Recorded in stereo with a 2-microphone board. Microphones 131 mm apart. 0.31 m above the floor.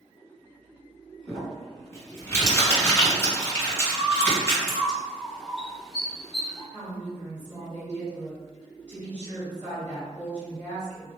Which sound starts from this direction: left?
Crumpling, at 1.3 s.